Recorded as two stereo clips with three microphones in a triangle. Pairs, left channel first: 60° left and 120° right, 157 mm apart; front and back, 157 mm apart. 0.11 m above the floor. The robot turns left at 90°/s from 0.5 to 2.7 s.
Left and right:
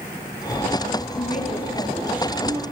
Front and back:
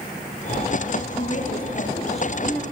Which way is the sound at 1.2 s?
50° left.